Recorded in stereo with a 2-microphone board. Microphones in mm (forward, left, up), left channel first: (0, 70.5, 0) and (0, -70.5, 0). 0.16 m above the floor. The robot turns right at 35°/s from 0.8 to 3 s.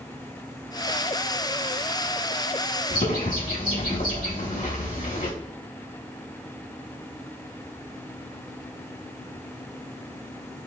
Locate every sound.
2.9 s a bird: 70° left (ahead or behind), 2.5 m; by 5.3 s 75° left (ahead or behind), 2.5 m